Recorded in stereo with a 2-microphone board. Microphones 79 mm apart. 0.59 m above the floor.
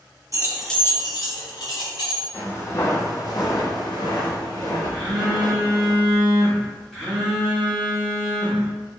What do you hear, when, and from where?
0.3 s keys jangling: 45° right (ahead or behind), 0.6 m; by 2.2 s 75° left (ahead or behind), 2 m
2.3 s footsteps: 25° left (ahead or behind), 1.1 m; by 5.9 s 55° left (ahead or behind), 2 m
4.9 s a phone buzzing: 5° left (ahead or behind), 1.2 m